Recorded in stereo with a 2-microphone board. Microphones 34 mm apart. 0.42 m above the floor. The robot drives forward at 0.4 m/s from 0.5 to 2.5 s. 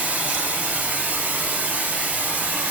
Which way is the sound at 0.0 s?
65° right (ahead or behind).